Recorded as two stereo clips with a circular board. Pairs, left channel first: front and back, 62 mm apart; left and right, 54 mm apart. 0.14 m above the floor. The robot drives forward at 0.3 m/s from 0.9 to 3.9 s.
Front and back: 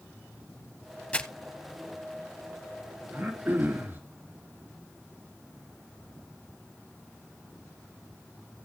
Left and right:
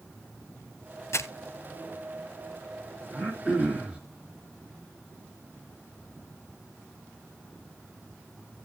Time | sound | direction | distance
1.1 | crumpling | 65° left | 0.7 m
3.1 | throat clearing | 150° right | 2 m